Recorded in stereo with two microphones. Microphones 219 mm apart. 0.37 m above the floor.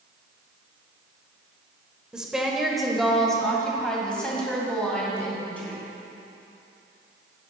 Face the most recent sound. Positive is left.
turn(degrees=5)  # may be behind; listen again after turning